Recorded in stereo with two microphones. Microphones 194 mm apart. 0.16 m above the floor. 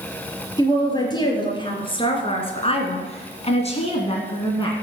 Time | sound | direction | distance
0.6 | a woman speaking | 20° left (ahead or behind) | 4 m